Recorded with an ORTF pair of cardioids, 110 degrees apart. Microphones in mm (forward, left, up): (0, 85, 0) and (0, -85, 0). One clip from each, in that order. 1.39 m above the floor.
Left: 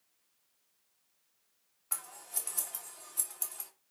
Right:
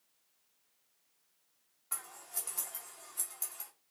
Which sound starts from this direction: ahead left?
Scissors, at 1.9 s.